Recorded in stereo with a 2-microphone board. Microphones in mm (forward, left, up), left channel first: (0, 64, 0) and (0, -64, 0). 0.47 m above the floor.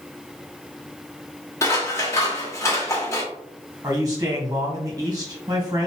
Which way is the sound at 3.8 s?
30° right (ahead or behind).